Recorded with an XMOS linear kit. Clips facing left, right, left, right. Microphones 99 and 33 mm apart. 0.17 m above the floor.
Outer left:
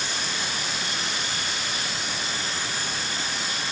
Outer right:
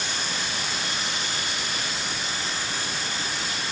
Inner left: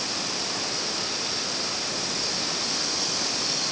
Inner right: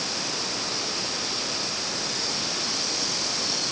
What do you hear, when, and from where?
Only background noise.